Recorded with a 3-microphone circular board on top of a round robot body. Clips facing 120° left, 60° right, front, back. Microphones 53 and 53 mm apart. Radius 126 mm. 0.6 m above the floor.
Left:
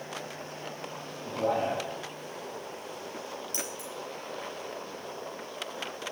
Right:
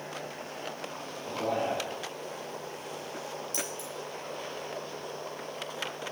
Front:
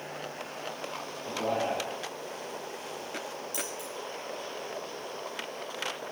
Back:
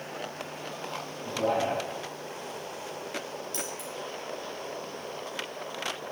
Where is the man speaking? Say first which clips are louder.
Left 2 dB, back 3 dB; 155° left, 5.5 m.